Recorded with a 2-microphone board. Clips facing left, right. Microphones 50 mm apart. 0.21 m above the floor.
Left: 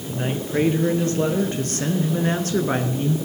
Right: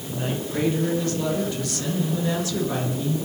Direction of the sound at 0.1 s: 30° left (ahead or behind).